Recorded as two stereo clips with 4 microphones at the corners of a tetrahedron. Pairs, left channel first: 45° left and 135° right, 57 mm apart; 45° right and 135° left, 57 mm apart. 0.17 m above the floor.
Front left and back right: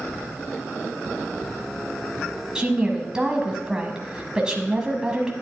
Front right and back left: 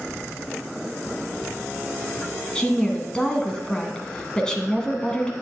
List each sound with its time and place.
2.5 s a woman speaking: 90° right, 1.2 m